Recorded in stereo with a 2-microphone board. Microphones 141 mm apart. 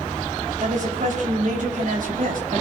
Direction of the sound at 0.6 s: 60° right (ahead or behind).